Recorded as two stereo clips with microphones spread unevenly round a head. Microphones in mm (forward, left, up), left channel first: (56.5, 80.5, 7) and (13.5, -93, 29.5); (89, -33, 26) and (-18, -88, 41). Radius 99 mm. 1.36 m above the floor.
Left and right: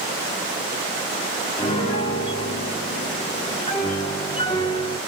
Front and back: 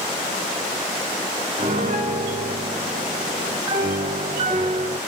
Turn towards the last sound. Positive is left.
turn(degrees=145)